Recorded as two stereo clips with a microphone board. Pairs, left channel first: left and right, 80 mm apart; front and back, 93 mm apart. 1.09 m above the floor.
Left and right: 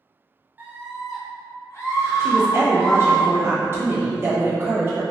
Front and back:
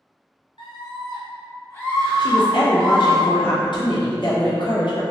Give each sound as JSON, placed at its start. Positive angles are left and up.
{"t": 0.6, "sound": "a scream", "azimuth_deg": -25, "distance_m": 0.9}
{"t": 2.2, "sound": "a woman speaking", "azimuth_deg": -30, "distance_m": 1.0}